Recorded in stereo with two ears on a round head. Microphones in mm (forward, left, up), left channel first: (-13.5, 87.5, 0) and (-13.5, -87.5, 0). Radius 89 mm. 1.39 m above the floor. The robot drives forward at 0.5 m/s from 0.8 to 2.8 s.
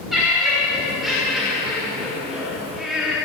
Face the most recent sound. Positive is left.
turn(degrees=0)  # may be behind; listen again after turning